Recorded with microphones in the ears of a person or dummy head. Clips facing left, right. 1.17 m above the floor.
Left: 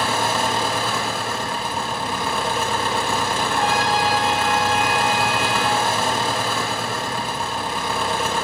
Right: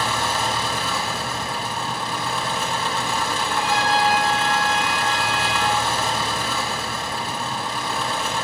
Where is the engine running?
45° left (ahead or behind), 1.4 m.